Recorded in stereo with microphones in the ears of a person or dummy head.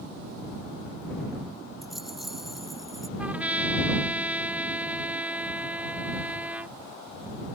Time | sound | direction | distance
1.8 | a rattle | centre (ahead or behind) | ?
3.2 | a trumpet | 5° right (ahead or behind) | ?